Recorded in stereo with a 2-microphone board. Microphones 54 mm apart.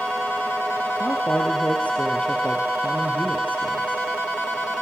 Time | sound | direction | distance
1.0 | a man speaking | 25° left (ahead or behind) | 4 m